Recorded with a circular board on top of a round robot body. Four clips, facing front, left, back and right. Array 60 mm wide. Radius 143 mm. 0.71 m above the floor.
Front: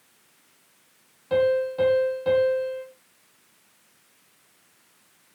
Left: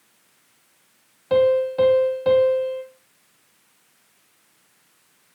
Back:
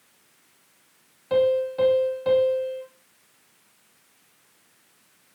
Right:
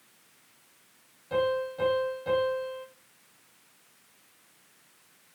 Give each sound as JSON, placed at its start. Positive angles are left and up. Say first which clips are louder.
{"t": 1.3, "sound": "a piano", "louder": "left 11 dB, back 1 dB", "azimuth_deg": 95, "distance_m": 5.5}